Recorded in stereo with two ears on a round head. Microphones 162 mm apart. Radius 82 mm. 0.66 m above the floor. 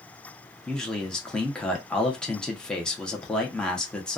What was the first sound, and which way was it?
A man speaking, 5° left (ahead or behind).